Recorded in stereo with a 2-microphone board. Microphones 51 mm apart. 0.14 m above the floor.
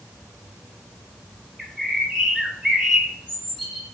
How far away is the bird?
About 2 m.